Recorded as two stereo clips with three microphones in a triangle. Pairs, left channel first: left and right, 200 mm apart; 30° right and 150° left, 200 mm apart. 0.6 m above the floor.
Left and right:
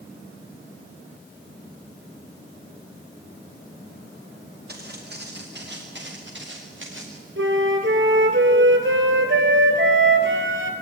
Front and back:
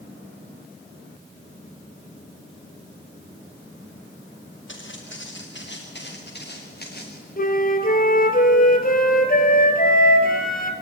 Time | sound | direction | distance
4.7 | footsteps | 50° right | 6.5 m
7.4 | a flute | 75° right | 2 m